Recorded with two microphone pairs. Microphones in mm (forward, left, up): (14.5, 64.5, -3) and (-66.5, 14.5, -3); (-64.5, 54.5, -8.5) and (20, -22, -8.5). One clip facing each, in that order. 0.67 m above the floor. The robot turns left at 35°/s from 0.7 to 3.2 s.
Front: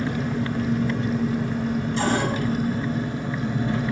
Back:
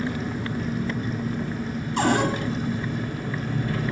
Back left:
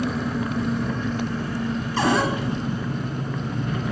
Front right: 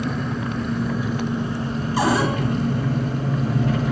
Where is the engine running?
55° left, 0.9 m; by 3.9 s 35° right, 0.9 m.